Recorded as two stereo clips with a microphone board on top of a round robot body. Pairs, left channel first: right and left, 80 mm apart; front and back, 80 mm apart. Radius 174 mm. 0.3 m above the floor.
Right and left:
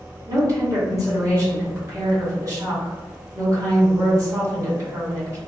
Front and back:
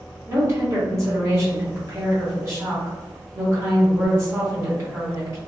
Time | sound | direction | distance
0.3 | a woman speaking | 130° left | 1.9 m